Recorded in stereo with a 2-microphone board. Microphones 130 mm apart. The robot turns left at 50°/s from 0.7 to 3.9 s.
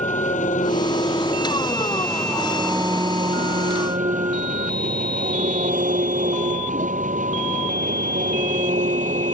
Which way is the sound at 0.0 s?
75° left.